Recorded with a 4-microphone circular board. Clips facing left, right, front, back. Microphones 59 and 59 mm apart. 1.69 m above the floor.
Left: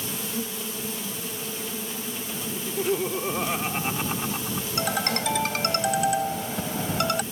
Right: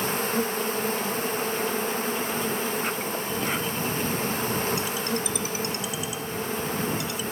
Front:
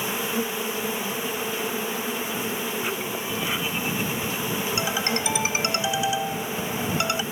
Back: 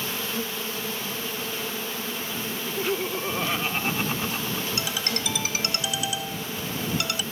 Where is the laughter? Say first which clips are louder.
Left 1 dB, back 1 dB; 125° left.